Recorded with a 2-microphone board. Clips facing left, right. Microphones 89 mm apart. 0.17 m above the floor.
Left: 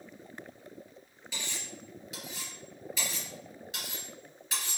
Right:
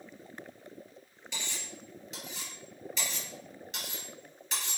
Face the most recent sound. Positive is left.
turn(degrees=10)  # may be behind; listen again after turning